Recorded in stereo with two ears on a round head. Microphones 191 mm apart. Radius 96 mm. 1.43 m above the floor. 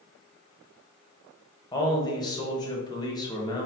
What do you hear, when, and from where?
1.7 s a man speaking: 20° left (ahead or behind), 1.0 m